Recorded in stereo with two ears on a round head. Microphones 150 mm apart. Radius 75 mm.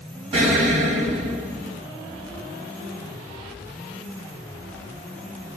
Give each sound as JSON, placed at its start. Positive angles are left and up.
{"t": 0.3, "sound": "an explosion", "side_deg": -40, "distance_m": 1.2}